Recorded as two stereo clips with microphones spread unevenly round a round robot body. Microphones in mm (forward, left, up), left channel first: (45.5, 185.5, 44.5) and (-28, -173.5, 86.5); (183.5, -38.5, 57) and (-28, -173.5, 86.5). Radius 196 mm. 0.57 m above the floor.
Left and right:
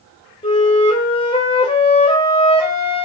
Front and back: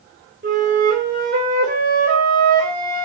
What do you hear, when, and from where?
0.4 s a flute: 150° left, 3 m